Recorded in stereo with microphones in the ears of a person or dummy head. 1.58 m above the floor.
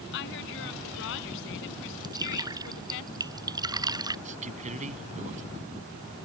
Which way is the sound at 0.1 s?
65° left (ahead or behind).